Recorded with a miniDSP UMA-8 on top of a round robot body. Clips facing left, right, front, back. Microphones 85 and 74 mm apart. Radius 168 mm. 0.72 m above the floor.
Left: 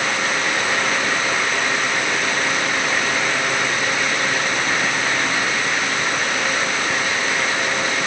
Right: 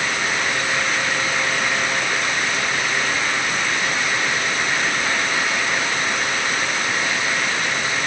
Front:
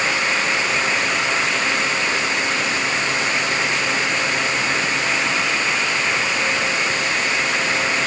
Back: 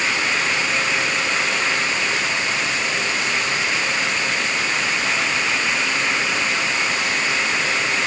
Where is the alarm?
I don't hear an alarm.